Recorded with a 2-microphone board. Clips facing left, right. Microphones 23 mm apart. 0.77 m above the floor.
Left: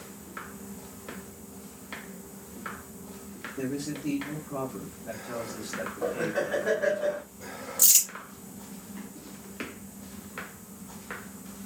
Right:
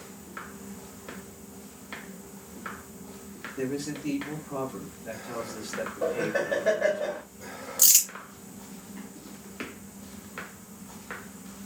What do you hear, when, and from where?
3.6 s a man speaking: 70° right (ahead or behind), 2.5 m
6.0 s laughter: 55° right (ahead or behind), 2.0 m
7.8 s crumpling: 60° right (ahead or behind), 1.8 m